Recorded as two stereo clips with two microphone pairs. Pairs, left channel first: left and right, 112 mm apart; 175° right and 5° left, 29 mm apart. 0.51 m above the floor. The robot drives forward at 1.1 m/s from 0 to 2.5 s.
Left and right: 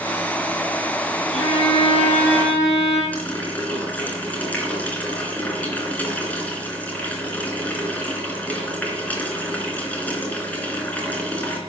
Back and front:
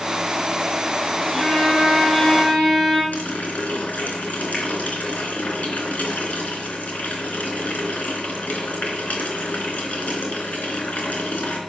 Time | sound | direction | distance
1.3 | a violin | 100° left | 6.5 m
3.1 | a running tap | 165° left | 4 m